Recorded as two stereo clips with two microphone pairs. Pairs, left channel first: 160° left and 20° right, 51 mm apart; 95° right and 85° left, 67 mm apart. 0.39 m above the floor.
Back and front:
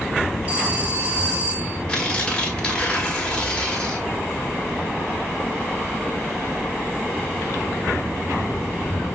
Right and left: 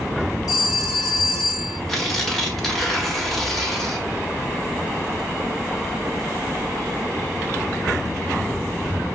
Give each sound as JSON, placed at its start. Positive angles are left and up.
{"t": 0.5, "sound": "a phone ringing", "azimuth_deg": -85, "distance_m": 3.0}
{"t": 1.9, "sound": "tearing paper", "azimuth_deg": -165, "distance_m": 1.5}